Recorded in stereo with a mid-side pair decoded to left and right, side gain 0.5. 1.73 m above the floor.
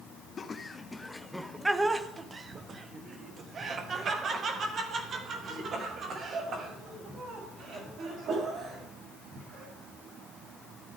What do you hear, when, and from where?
0.4 s laughter: 40° left, 0.8 m; by 9.7 s 60° right, 5 m